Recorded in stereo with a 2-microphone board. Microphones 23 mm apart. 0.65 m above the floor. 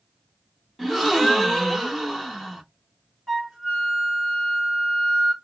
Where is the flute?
5° right (ahead or behind), 2 m.